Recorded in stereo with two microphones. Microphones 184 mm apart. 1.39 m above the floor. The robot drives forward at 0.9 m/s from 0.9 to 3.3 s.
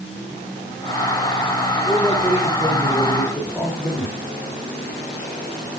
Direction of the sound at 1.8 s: 15° left (ahead or behind).